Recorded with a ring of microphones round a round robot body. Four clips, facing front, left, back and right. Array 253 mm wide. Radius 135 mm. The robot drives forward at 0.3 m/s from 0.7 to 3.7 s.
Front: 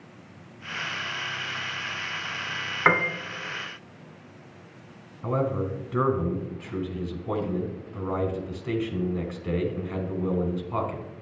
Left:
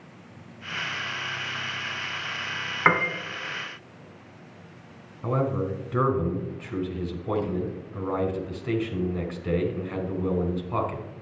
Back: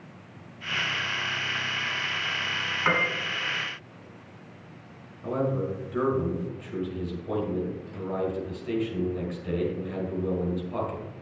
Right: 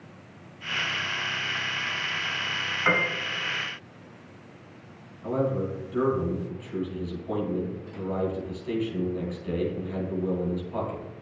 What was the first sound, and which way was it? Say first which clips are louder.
A piano: left 3 dB, front 4 dB; 55° left.